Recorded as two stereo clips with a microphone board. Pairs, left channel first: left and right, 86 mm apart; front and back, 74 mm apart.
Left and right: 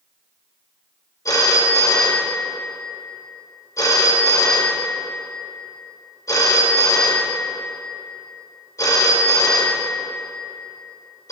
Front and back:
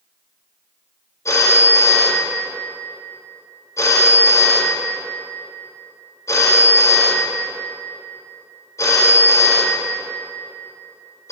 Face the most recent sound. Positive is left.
turn(degrees=45)